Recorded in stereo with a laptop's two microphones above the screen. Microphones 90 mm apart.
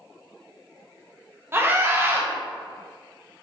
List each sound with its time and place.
1.5 s a scream: 25° right (ahead or behind), 0.6 m